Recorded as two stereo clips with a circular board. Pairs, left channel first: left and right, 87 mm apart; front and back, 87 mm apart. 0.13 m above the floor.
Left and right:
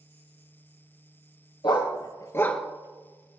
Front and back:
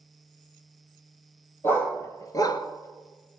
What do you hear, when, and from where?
1.6 s a dog barking: 65° left, 1.5 m; by 3.4 s 80° right, 1.1 m